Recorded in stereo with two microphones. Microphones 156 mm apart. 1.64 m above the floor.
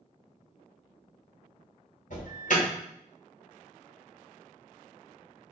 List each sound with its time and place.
2.1 s an alarm: 60° left (ahead or behind), 1.3 m